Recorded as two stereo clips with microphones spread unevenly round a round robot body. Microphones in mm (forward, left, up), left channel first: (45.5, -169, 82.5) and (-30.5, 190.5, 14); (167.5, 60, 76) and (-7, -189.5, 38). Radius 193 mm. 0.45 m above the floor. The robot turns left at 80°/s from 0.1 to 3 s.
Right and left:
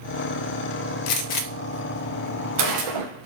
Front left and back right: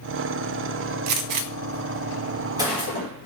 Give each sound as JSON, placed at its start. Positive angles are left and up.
{"t": 1.1, "sound": "a gunshot", "azimuth_deg": -85, "distance_m": 0.5}